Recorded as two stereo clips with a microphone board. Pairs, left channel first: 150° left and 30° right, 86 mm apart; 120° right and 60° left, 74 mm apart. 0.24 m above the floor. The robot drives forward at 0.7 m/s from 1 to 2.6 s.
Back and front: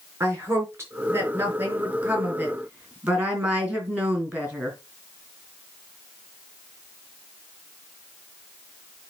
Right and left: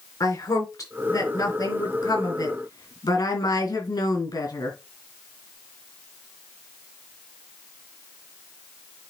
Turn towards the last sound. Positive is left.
turn(degrees=-105)